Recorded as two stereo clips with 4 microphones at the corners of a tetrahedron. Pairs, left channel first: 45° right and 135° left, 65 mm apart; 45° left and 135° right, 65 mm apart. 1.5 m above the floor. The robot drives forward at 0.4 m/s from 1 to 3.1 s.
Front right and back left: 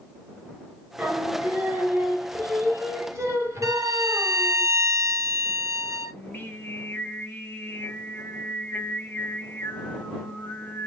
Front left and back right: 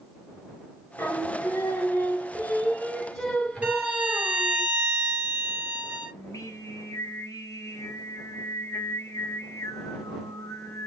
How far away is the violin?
About 1.9 m.